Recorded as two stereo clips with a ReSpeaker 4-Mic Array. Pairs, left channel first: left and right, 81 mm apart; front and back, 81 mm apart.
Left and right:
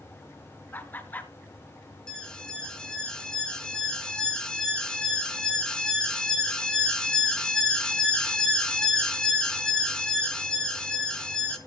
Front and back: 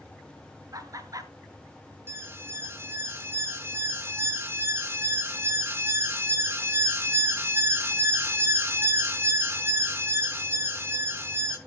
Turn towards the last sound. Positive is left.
turn(degrees=160)